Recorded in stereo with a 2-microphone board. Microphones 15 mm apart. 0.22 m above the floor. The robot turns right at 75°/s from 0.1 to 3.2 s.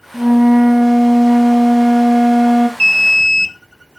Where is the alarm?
100° left, 1.4 m; by 3.5 s 130° left, 1.4 m.